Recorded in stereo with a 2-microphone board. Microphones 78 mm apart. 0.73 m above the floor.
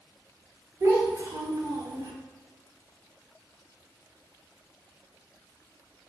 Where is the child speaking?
40° right (ahead or behind), 1.4 m; by 2.1 s 70° right (ahead or behind), 1.6 m.